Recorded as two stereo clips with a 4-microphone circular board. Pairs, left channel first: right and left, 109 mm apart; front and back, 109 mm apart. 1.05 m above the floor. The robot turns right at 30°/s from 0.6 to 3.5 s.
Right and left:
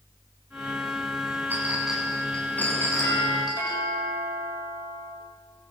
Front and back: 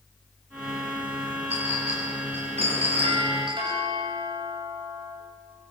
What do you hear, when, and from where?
1.5 s a clink: 165° left, 8.5 m; by 3.8 s 135° right, 8.5 m
3.0 s a doorbell: 155° right, 9 m; by 5.1 s 140° right, 9 m